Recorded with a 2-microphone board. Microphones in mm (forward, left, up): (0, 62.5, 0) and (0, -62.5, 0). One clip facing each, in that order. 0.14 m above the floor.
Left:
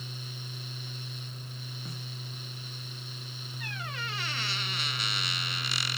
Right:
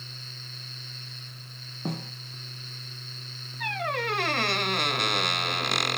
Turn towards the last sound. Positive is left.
turn(degrees=-60)  # may be behind; listen again after turning